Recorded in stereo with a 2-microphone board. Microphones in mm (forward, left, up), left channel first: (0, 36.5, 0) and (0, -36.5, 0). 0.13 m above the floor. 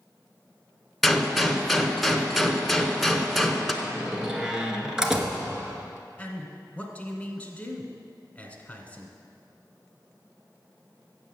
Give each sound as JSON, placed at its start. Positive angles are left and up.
{"t": 1.0, "sound": "a gunshot", "side_deg": 0, "distance_m": 0.8}
{"t": 3.8, "sound": "a door slam", "side_deg": -10, "distance_m": 1.2}
{"t": 6.2, "sound": "a man speaking", "side_deg": 20, "distance_m": 1.1}